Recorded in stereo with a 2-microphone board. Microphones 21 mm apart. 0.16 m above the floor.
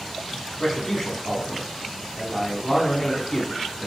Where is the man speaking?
15° left (ahead or behind), 1.2 m.